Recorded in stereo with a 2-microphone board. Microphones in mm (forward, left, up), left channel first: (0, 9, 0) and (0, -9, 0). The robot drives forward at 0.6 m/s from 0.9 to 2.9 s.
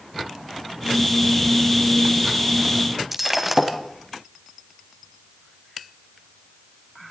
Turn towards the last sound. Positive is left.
turn(degrees=-10)  # may be behind; listen again after turning